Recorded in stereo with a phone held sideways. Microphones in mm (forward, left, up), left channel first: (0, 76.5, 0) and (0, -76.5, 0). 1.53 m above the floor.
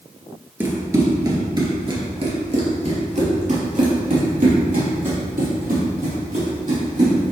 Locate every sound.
0.6 s running footsteps: 15° right (ahead or behind), 1.6 m; by 7.3 s 65° right (ahead or behind), 4 m